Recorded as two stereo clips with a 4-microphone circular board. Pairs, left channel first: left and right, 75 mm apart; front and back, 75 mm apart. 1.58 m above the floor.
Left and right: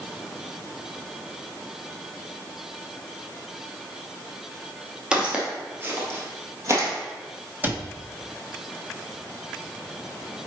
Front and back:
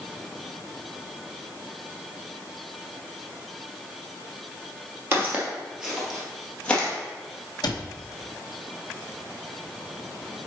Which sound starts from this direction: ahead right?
A cupboard door, at 7.6 s.